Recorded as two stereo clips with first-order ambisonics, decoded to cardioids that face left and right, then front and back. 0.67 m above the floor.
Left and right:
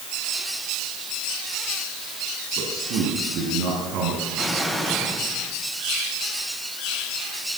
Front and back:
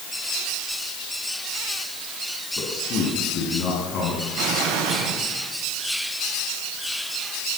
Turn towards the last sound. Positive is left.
turn(degrees=175)